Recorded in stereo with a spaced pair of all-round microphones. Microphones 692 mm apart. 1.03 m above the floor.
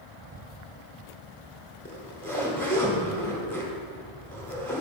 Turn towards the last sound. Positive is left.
turn(degrees=5)  # may be behind; listen again after turning